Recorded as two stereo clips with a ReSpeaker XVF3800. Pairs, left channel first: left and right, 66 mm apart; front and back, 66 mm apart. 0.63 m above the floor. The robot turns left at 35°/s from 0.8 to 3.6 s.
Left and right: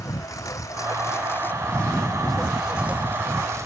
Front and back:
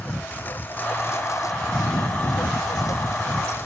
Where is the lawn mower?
60° left; by 3.7 s 50° right.